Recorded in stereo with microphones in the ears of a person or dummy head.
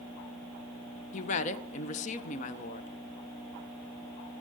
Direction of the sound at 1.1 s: 40° left (ahead or behind).